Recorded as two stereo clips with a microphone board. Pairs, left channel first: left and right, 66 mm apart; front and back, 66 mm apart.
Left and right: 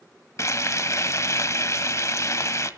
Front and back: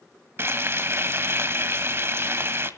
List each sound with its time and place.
0.4 s frying: 130° left, 1.2 m